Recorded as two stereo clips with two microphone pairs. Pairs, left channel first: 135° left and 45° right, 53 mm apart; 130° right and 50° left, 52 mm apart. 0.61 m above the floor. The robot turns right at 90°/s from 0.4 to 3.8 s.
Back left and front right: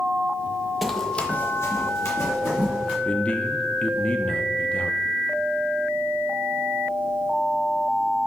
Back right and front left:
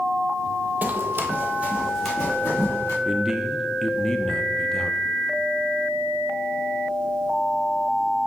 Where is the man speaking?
95° left, 0.6 m; by 5.0 s 160° left, 0.6 m.